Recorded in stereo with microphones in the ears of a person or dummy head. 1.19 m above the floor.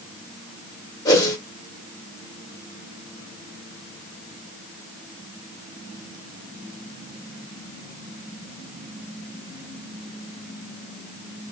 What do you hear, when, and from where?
1.1 s a whoosh: 20° left (ahead or behind), 1.0 m